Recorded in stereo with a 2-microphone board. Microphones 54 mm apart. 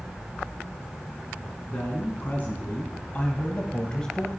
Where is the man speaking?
40° left (ahead or behind), 2.5 m; by 4.3 s 10° left (ahead or behind), 0.9 m.